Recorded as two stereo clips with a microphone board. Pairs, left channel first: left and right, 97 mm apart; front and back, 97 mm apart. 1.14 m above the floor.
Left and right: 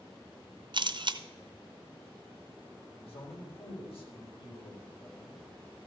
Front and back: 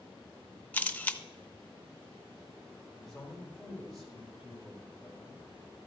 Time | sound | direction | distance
0.7 | a camera shutter | 70° right | 0.6 m
3.0 | a man speaking | 90° left | 4 m